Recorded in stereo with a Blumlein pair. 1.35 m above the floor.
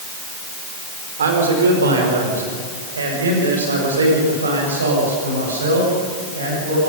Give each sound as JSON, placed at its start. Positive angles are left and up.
{"t": 1.2, "sound": "a man speaking", "azimuth_deg": -65, "distance_m": 4.5}